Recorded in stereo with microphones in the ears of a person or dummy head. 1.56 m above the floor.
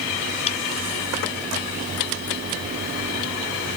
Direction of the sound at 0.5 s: 35° left (ahead or behind).